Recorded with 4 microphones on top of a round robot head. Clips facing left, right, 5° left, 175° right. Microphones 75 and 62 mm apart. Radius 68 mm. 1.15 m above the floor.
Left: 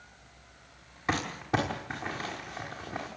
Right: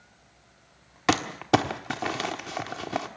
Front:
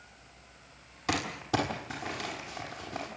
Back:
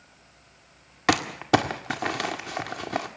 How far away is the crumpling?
About 1.6 m.